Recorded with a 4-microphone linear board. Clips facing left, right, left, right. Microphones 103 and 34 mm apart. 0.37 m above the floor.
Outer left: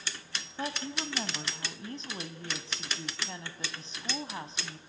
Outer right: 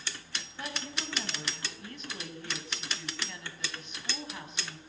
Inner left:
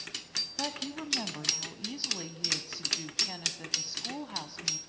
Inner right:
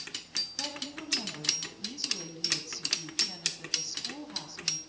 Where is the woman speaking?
30° left (ahead or behind), 2.5 m.